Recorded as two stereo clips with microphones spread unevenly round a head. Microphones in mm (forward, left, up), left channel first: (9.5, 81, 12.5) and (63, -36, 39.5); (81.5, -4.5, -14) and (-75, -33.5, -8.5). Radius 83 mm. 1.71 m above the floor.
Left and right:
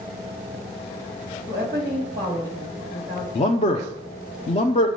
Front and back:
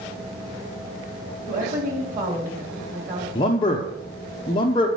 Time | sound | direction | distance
1.5 | a woman speaking | 135° right | 3 m
3.4 | a man speaking | 70° left | 0.8 m